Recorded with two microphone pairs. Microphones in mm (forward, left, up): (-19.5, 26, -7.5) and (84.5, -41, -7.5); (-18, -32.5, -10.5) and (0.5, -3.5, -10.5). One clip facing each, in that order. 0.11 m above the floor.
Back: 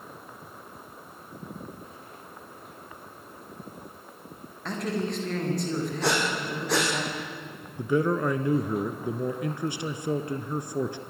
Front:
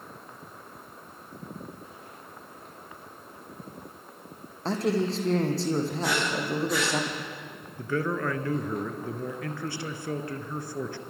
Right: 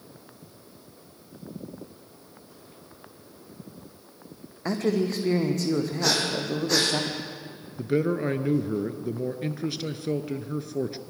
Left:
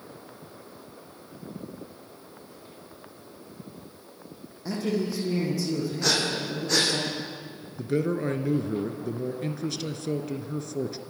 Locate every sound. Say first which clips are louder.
4.7 s a man speaking: front 4 dB, right 3 dB; 90° right, 4 m
6.0 s breathing: back 1 dB, right 1 dB; 150° left, 5 m
7.8 s a man speaking: back 4 dB, right 2 dB; 175° right, 1.2 m